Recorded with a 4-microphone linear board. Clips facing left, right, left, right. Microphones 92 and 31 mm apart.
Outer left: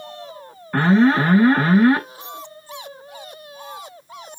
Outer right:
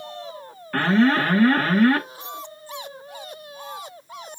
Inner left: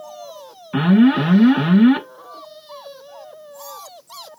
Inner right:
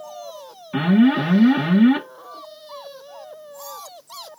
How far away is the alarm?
About 1.3 m.